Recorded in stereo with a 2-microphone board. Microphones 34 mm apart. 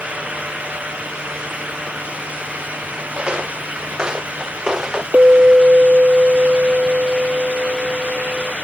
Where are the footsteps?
30° right (ahead or behind); by 5.0 s 20° right (ahead or behind).